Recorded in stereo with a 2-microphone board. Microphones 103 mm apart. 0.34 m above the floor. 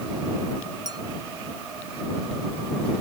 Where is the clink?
40° right (ahead or behind).